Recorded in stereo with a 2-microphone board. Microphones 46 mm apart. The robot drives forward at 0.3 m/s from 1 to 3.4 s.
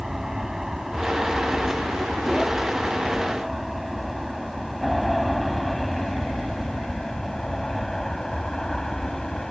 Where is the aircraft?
10° right (ahead or behind); by 9.5 s 15° left (ahead or behind).